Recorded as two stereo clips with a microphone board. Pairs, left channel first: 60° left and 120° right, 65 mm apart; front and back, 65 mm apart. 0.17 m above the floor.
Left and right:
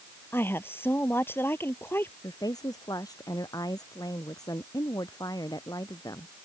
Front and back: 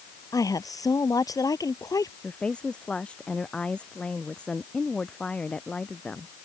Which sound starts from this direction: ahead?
A woman speaking, at 0.3 s.